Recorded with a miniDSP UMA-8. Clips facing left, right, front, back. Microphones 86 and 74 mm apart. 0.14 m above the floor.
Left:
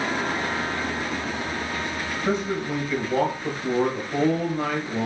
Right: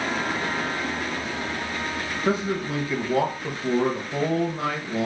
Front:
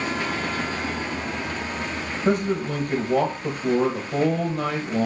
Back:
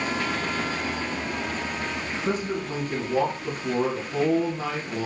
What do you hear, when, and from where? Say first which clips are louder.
2.2 s a man speaking: right 1 dB, front 6 dB; 20° right, 2 m